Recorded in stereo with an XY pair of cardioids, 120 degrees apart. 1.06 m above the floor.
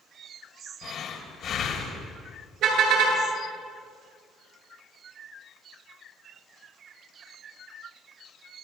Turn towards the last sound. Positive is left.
turn(degrees=-70)